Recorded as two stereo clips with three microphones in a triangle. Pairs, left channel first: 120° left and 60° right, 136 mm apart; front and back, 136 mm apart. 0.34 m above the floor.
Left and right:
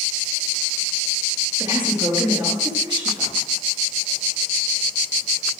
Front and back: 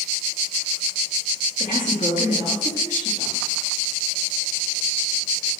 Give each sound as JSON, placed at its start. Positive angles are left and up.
{"t": 1.6, "sound": "a woman speaking", "azimuth_deg": -5, "distance_m": 6.5}